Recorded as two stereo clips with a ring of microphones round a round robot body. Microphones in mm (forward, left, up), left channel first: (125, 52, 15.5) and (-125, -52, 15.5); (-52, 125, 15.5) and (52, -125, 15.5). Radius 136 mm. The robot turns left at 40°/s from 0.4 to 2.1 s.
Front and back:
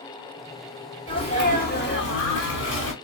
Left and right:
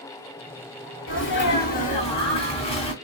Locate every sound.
1.1 s a sneeze: 90° left, 1.8 m; by 2.9 s 50° left, 1.8 m